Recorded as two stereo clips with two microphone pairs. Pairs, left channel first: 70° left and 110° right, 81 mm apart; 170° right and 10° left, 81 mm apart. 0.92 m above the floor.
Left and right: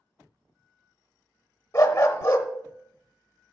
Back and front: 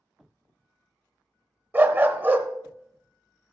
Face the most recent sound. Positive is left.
turn(degrees=55)